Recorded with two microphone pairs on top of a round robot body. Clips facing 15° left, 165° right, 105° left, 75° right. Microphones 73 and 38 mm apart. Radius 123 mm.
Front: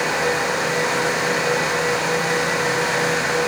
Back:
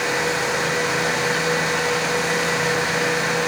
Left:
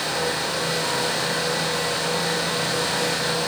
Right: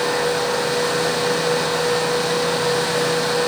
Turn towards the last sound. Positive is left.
No sound to turn to.